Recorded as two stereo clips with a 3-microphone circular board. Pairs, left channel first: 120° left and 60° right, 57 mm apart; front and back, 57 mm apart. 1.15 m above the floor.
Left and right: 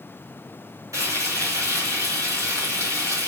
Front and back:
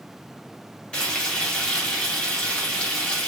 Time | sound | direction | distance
0.9 | frying | 70° right | 2.5 m